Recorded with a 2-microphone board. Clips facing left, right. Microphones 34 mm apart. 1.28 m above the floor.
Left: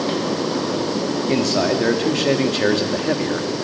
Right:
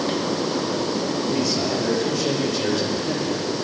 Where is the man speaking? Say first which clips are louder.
Left 7 dB; 85° left, 2 m; by 3.5 s 60° left (ahead or behind), 1.9 m.